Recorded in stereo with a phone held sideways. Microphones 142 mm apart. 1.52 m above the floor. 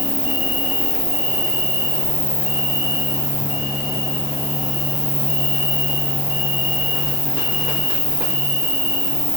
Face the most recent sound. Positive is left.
turn(degrees=35)  # may be behind; listen again after turning